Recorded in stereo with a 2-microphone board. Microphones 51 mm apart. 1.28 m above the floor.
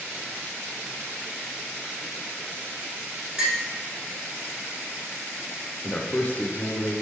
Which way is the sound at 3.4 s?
15° right (ahead or behind).